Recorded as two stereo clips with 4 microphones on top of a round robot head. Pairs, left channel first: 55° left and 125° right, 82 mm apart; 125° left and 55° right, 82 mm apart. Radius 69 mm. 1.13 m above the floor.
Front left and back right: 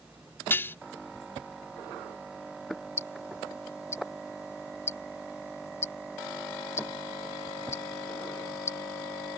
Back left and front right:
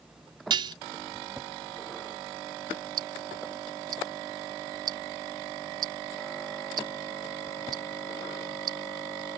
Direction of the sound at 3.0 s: 10° right.